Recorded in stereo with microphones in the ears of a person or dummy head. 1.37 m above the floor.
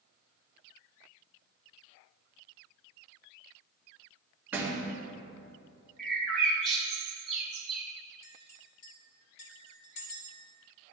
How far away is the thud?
About 2.5 m.